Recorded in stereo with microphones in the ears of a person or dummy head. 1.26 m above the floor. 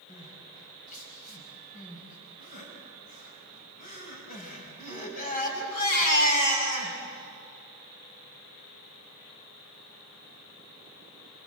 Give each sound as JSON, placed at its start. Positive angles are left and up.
{"t": 0.1, "sound": "crying", "side_deg": 45, "distance_m": 5.0}